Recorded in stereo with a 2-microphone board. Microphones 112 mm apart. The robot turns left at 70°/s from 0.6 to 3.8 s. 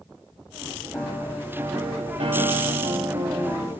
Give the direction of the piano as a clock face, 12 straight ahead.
12 o'clock.